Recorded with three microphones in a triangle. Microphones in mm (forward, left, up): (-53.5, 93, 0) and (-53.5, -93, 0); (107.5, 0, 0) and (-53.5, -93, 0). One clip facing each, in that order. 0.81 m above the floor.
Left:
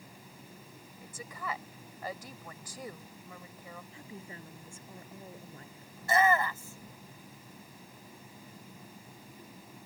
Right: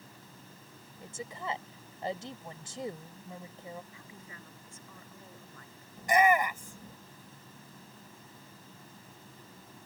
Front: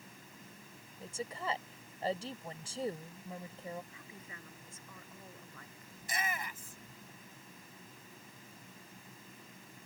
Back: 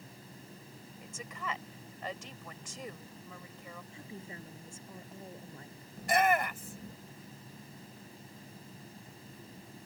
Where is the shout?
165° right.